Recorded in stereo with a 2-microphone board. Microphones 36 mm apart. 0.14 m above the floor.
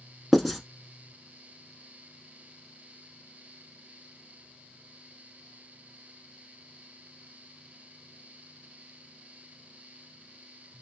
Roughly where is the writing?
Centre.